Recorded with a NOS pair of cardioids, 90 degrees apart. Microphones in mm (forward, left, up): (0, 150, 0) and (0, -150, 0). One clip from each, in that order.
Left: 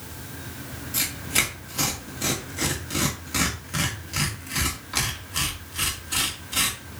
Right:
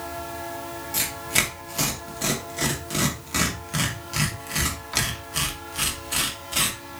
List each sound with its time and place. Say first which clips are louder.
0.9 s tearing paper: even; 15° right, 2.5 m